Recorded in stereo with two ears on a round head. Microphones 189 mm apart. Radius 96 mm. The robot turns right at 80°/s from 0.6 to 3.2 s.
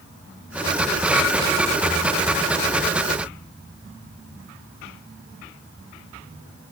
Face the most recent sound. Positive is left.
No sound to turn to.